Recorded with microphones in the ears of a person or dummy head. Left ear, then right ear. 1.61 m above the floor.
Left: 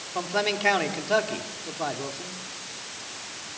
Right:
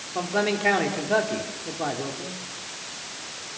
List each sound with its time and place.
0.1 s a man speaking: 25° left (ahead or behind), 4 m